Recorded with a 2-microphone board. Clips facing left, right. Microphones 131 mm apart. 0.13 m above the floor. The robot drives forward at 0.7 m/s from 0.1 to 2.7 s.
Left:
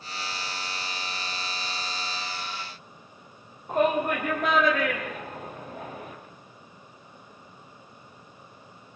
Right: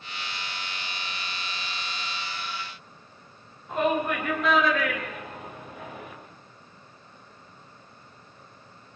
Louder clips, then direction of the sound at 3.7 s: Left 2 dB; 45° left (ahead or behind).